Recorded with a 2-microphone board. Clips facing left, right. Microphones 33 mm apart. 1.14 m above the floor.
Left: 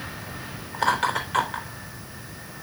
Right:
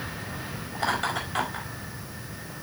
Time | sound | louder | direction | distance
0.7 | laughter | left 5 dB | 80° left | 3.5 m